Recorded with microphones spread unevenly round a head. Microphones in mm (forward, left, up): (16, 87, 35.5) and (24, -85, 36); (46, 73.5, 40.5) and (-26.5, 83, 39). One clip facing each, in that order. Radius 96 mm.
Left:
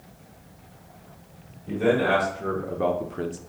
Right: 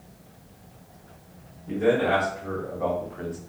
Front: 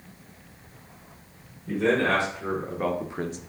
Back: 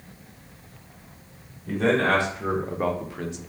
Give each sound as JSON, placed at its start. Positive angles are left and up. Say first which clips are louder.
{"t": 1.7, "sound": "a man speaking", "louder": "even, back 1 dB", "azimuth_deg": 135, "distance_m": 1.3}